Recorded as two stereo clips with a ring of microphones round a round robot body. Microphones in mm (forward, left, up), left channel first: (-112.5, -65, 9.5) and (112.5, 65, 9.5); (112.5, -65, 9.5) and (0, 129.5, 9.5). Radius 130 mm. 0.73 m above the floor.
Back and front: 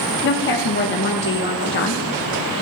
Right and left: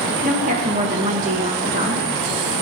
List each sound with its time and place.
0.2 s a woman speaking: 175° left, 1.3 m